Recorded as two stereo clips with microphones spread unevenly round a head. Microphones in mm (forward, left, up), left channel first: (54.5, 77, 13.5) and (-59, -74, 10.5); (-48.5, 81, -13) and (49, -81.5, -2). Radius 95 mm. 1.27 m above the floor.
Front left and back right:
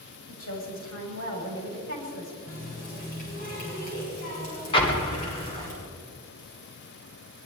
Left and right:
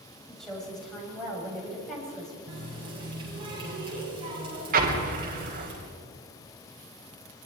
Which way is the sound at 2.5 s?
5° left.